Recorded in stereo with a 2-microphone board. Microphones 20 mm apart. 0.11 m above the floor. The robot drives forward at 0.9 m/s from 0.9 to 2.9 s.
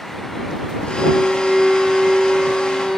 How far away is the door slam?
I don't hear a door slam.